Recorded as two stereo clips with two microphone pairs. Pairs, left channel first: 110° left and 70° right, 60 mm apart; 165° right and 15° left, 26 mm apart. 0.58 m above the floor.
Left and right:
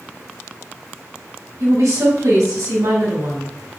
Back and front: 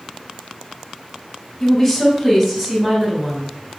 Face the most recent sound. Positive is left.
turn(degrees=-55)